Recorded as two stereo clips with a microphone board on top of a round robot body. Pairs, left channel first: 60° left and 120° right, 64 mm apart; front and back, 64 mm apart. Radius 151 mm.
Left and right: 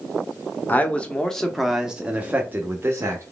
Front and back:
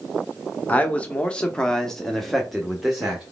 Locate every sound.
0.7 s a man speaking: 35° left, 1.1 m; by 3.2 s 100° right, 1.4 m